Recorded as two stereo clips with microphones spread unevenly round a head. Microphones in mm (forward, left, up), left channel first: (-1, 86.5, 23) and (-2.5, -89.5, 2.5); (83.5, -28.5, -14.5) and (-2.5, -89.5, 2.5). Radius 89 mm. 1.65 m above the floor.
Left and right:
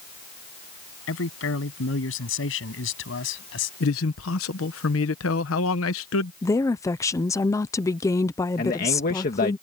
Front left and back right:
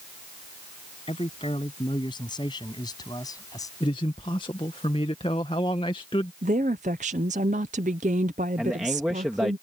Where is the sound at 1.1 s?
100° left; by 3.7 s 110° left.